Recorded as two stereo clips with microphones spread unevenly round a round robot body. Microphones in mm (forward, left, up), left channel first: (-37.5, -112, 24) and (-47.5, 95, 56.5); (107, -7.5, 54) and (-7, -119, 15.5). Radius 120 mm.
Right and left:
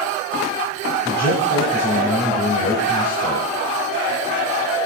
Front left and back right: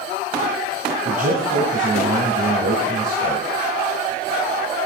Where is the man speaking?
120° right, 1.9 m.